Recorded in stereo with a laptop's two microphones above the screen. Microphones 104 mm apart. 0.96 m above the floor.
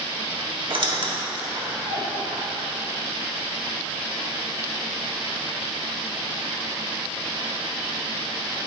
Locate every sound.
0.7 s a squeak: 55° right (ahead or behind), 1.6 m